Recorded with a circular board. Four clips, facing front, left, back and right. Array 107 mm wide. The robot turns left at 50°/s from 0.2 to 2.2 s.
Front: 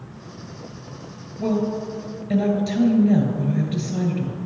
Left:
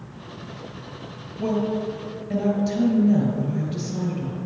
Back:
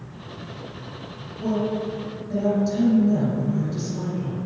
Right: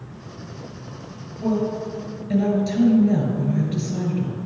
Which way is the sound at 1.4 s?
25° left.